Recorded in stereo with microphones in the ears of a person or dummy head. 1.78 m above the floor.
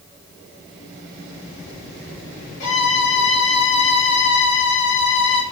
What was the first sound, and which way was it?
A violin, 40° left (ahead or behind).